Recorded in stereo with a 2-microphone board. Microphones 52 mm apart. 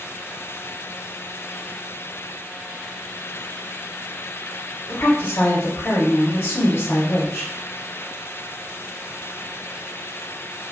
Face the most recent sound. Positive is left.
turn(degrees=65)  # may be behind; listen again after turning